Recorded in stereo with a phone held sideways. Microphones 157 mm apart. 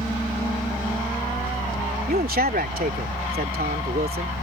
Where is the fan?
15° right (ahead or behind).